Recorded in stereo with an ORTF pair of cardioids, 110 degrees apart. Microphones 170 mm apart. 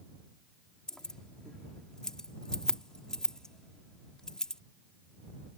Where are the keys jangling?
5° left.